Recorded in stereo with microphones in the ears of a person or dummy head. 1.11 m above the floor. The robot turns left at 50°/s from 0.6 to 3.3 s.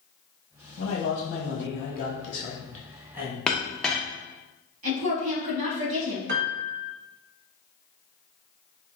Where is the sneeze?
I don't hear a sneeze.